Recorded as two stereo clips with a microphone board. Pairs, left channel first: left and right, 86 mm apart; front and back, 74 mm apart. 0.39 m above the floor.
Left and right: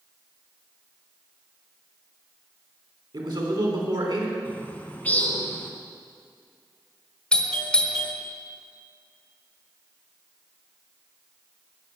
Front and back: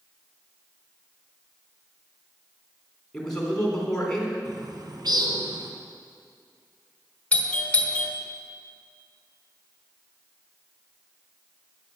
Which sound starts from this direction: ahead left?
A doorbell, at 7.3 s.